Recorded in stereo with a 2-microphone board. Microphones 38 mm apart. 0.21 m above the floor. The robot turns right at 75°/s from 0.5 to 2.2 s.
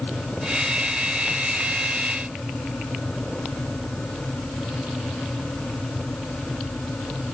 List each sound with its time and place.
Only background noise.